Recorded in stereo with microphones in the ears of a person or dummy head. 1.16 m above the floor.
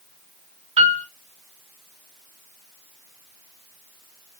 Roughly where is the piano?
Right.